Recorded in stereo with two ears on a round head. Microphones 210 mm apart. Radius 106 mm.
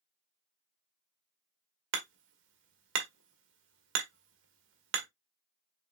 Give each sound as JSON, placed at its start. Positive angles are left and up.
{"t": 1.9, "sound": "hammering", "side_deg": -55, "distance_m": 1.3}